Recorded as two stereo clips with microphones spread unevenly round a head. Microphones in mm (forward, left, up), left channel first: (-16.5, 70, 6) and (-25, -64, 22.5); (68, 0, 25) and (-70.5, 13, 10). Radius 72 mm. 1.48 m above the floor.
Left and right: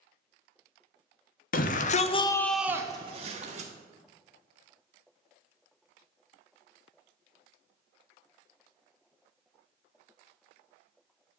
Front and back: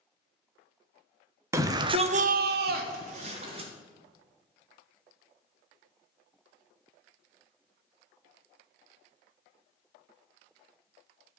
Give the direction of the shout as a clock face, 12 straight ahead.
9 o'clock.